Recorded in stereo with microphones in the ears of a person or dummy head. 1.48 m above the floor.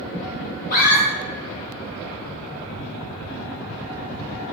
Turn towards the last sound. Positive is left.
turn(degrees=50)  # may be behind; listen again after turning